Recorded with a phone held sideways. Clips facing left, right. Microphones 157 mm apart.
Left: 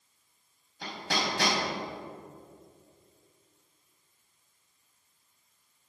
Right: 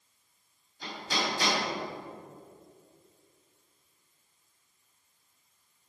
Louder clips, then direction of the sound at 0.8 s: Left 1 dB; 70° left (ahead or behind).